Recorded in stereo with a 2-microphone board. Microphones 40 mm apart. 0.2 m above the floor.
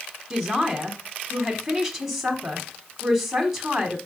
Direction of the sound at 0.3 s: 5° right (ahead or behind).